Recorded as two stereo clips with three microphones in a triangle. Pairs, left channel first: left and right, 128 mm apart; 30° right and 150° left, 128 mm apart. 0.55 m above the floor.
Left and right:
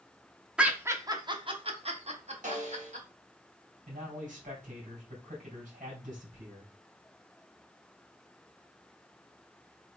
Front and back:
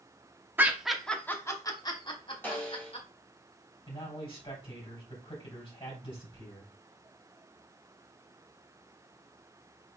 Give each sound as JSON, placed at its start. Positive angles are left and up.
{"t": 0.6, "sound": "laughter", "azimuth_deg": -160, "distance_m": 0.7}
{"t": 2.4, "sound": "a snare drum", "azimuth_deg": -105, "distance_m": 2.5}
{"t": 3.9, "sound": "a man speaking", "azimuth_deg": -80, "distance_m": 3.5}